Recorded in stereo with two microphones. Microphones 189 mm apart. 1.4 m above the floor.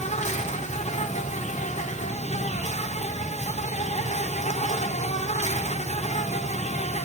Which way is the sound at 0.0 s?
40° left (ahead or behind).